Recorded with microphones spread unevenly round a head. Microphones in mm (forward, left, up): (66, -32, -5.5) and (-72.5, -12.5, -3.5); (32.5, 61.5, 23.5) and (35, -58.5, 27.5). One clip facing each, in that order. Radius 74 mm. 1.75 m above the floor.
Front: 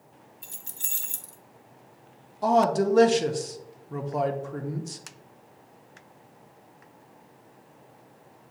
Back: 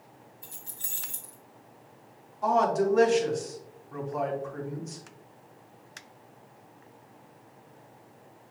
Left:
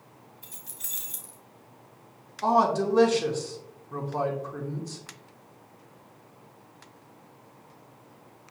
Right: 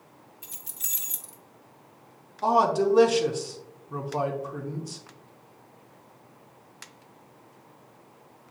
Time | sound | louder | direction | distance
0.4 | keys jangling | even, even | 65° right | 1.6 m
2.4 | a man speaking | front 3 dB, right 1 dB | 15° right | 0.7 m